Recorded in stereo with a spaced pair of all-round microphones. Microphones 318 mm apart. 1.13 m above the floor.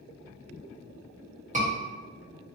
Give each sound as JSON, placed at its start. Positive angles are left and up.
{"t": 1.5, "sound": "a scream", "side_deg": -20, "distance_m": 1.9}